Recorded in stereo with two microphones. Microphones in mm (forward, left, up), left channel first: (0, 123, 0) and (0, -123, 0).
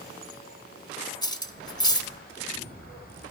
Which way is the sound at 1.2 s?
15° left (ahead or behind).